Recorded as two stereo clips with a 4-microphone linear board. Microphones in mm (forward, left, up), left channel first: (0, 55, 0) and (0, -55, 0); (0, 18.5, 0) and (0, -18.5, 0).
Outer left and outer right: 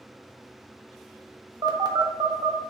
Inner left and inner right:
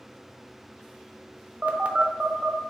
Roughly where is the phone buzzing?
Right.